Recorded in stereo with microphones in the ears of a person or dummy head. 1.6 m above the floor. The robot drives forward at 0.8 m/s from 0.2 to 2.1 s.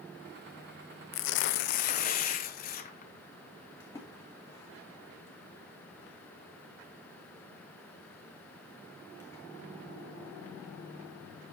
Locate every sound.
1.1 s tearing paper: 70° left (ahead or behind), 0.6 m; by 3.1 s 35° left (ahead or behind), 1.1 m
3.8 s a splash: 15° left (ahead or behind), 2.5 m